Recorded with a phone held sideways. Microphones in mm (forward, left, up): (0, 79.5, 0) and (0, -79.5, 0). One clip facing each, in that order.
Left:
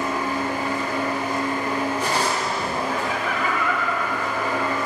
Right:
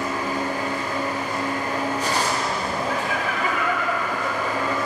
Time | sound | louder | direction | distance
0.0 | a machine running | left 1 dB | 60° left (ahead or behind) | 1.8 m
2.9 | laughter | even | 20° right (ahead or behind) | 1.8 m